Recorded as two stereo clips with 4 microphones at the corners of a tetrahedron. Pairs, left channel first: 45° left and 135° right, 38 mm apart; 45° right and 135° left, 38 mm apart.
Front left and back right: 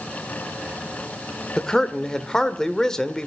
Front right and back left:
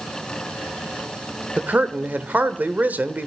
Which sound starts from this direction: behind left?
A man speaking, at 1.6 s.